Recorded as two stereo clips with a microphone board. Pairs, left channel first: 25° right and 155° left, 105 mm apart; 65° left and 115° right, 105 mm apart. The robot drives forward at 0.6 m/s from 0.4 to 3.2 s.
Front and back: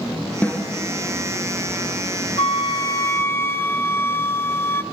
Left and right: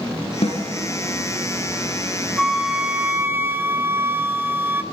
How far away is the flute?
About 0.9 m.